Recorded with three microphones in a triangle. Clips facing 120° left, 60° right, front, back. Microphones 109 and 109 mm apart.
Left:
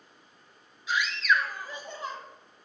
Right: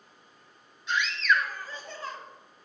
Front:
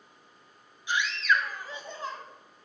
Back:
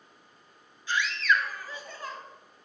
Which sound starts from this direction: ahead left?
A scream, at 0.9 s.